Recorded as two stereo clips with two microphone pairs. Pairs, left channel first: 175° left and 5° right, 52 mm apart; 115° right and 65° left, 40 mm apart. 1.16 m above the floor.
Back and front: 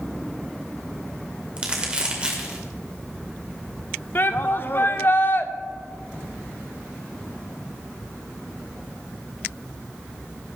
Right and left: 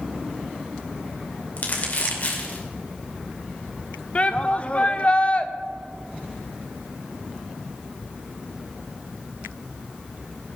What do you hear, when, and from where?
1.6 s crumpling: 75° right, 2.5 m
4.2 s a shout: 165° right, 0.8 m